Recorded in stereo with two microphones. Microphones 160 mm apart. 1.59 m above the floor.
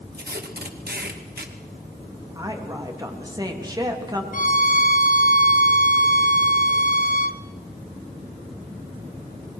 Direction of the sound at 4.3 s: 55° left (ahead or behind).